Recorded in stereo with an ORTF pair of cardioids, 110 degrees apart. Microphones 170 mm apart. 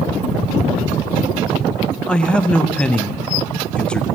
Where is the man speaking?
5° left, 0.5 m.